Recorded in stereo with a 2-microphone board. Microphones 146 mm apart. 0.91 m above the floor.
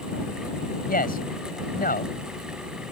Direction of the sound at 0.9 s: 80° left.